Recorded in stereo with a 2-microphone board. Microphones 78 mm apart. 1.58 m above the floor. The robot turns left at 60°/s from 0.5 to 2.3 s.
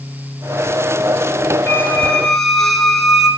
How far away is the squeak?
About 2.5 m.